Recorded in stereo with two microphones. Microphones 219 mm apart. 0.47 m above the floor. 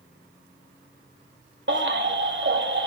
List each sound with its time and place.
1.7 s a baby crying: 60° right (ahead or behind), 1.9 m